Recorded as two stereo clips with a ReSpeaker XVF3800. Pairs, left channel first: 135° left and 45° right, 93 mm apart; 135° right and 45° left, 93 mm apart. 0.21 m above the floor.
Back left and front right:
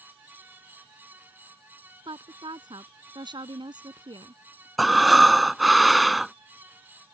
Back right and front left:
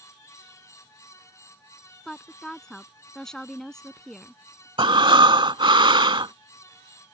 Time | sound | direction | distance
2.0 | a woman speaking | 50° right | ?
4.8 | breathing | 45° left | ?